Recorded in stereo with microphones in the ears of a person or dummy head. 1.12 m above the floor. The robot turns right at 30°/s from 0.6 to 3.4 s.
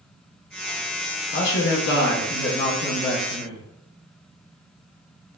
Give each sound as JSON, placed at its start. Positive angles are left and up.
{"t": 1.3, "sound": "a man speaking", "azimuth_deg": 80, "distance_m": 0.7}